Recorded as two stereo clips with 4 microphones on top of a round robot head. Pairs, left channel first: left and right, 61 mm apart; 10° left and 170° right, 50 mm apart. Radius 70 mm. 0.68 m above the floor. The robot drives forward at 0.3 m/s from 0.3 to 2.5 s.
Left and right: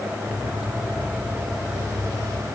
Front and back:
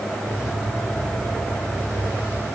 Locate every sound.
Only background noise.